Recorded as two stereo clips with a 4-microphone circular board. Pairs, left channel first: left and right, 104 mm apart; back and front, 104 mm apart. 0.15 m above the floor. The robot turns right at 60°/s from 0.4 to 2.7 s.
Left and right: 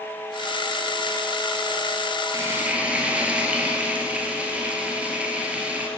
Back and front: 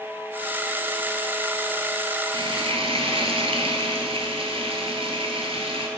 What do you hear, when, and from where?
2.3 s frying: 35° right, 1.0 m; by 5.9 s 10° right, 1.0 m